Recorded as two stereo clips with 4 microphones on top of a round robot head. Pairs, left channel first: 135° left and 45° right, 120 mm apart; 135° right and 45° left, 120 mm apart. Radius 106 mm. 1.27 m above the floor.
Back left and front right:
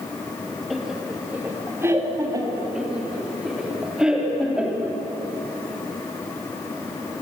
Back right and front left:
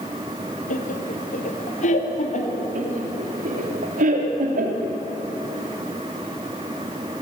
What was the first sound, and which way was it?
Laughter, 135° right.